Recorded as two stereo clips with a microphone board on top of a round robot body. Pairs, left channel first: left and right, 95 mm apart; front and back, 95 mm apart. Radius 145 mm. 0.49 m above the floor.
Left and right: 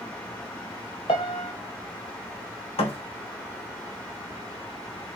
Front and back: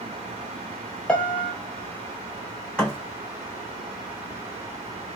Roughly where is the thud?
Left.